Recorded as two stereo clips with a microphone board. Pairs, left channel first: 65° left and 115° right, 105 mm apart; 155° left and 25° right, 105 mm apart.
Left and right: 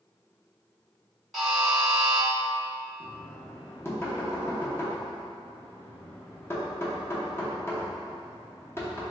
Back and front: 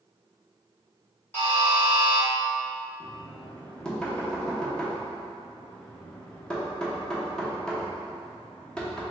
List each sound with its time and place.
1.3 s a buzzer: 160° left, 1.1 m
3.0 s knocking: 85° left, 0.6 m